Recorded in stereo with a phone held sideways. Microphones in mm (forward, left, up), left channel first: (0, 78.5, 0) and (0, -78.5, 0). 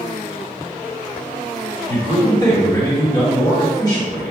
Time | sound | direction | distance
1.9 | a man speaking | 25° left (ahead or behind) | 1.8 m